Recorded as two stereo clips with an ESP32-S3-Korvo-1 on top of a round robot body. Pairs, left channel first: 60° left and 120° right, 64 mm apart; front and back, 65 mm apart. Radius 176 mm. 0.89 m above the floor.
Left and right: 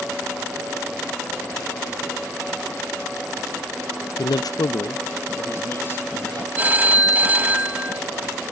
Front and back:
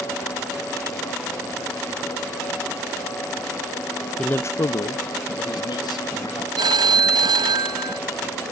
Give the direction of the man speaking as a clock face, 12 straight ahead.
9 o'clock.